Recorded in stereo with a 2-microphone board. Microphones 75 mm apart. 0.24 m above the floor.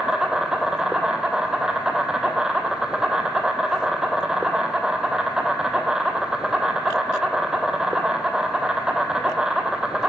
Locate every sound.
0.0 s an insect: 10° right (ahead or behind), 0.9 m